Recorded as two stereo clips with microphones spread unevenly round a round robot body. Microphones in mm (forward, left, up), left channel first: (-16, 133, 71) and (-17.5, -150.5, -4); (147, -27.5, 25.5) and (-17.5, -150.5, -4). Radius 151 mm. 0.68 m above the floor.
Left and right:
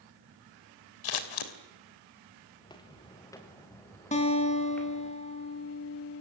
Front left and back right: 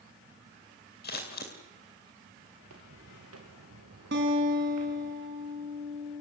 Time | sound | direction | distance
1.0 | scissors | 100° left | 3 m
2.6 | footsteps | 160° left | 3.5 m
4.1 | a guitar | 160° left | 4.5 m